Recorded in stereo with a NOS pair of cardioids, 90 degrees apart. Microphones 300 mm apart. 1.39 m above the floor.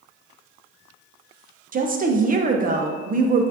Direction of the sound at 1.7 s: 30° right.